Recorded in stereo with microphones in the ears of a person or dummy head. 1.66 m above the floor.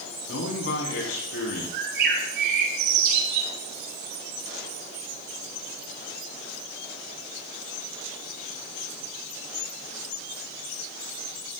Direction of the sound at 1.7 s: 65° right (ahead or behind).